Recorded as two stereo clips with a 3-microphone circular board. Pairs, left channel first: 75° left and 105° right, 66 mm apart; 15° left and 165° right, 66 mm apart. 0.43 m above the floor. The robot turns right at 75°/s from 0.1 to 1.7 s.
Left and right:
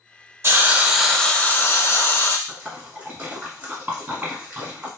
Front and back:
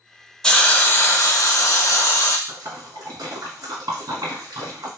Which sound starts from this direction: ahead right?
A hiss, at 0.4 s.